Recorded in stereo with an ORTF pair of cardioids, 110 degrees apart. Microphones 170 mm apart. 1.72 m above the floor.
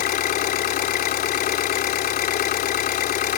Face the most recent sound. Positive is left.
turn(degrees=65)